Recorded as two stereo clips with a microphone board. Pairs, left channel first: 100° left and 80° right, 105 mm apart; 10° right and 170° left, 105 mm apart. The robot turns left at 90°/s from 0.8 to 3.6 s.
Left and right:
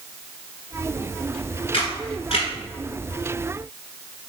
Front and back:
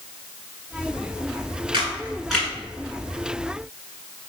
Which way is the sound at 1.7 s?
135° left.